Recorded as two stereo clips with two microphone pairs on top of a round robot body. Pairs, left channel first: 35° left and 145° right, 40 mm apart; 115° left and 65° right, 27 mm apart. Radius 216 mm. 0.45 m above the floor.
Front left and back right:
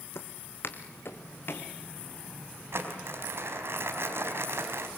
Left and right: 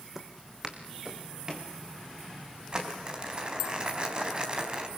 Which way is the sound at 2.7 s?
120° right.